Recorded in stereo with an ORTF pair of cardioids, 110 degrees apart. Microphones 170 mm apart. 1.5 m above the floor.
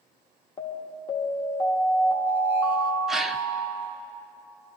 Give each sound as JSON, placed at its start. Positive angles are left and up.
{"t": 0.6, "sound": "an alarm", "azimuth_deg": 30, "distance_m": 1.5}
{"t": 3.1, "sound": "a gasp", "azimuth_deg": 0, "distance_m": 0.7}